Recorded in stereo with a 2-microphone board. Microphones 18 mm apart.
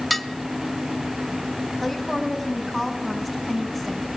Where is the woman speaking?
10° right (ahead or behind), 4 m.